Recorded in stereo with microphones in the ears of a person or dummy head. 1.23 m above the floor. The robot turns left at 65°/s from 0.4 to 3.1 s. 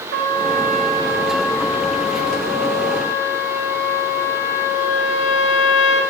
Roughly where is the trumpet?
Right.